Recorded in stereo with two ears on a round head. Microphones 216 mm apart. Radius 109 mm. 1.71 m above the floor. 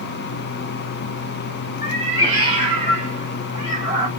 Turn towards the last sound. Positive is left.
turn(degrees=-30)  # may be behind; listen again after turning